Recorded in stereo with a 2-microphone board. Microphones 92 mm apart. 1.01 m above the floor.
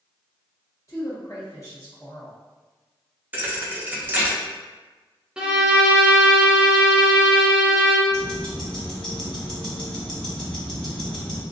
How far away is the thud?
About 0.6 m.